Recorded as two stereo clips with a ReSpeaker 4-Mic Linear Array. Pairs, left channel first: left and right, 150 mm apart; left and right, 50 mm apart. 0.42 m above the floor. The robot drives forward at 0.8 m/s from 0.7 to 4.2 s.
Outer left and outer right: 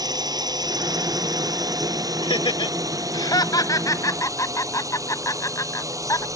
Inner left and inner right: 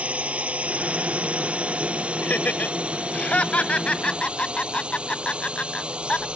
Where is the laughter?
35° left (ahead or behind); by 6.2 s 20° left (ahead or behind).